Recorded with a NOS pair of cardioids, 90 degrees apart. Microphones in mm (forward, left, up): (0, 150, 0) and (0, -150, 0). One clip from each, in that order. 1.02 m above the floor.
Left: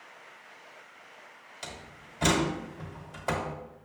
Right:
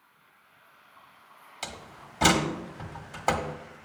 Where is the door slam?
50° right, 1.4 m.